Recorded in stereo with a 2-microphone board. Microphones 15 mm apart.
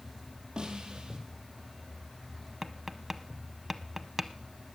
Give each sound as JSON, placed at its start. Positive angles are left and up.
{"t": 0.6, "sound": "a snare drum", "side_deg": -70, "distance_m": 2.5}
{"t": 2.6, "sound": "tapping", "side_deg": -20, "distance_m": 0.6}